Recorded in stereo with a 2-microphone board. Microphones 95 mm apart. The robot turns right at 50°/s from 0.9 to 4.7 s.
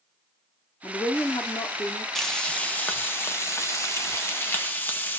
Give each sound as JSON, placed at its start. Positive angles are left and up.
{"t": 0.8, "sound": "a woman speaking", "azimuth_deg": 65, "distance_m": 0.7}
{"t": 2.1, "sound": "frying", "side_deg": 5, "distance_m": 0.6}